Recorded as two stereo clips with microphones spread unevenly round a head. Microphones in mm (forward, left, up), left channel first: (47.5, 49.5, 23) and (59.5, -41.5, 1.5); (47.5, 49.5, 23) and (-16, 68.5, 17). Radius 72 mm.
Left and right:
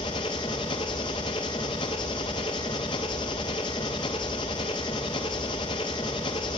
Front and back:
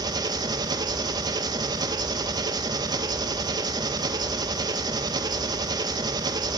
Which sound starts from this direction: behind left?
An engine running, at 0.0 s.